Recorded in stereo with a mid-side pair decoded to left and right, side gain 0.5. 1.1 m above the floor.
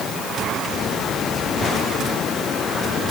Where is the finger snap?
No finger snap in this recording.